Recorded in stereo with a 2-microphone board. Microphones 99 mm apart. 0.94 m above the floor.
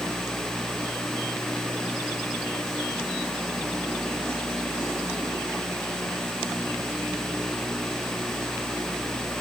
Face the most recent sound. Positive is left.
No sound to turn to.